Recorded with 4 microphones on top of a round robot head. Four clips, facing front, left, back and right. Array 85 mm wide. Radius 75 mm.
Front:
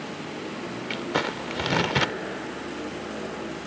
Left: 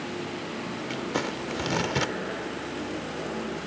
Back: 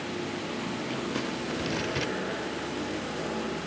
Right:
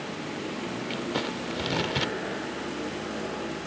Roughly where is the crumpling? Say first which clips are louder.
Left 2 dB, front 8 dB; ahead.